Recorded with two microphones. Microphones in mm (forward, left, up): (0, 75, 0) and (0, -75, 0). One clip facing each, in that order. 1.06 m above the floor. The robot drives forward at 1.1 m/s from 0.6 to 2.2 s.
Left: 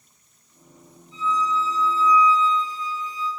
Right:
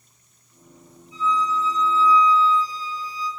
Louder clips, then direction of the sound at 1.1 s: Right 1 dB; 10° right (ahead or behind).